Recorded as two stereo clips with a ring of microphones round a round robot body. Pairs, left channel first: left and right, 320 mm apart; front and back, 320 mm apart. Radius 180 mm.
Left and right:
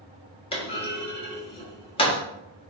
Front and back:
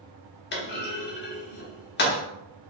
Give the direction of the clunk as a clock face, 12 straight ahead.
11 o'clock.